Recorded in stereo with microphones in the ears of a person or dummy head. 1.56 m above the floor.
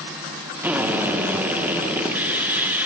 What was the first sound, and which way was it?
A drill, 10° right (ahead or behind).